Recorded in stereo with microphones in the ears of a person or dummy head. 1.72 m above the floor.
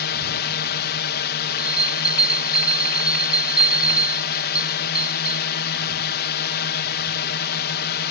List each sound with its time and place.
0.0 s a drone: 50° left (ahead or behind)
1.6 s a bell: 5° right (ahead or behind)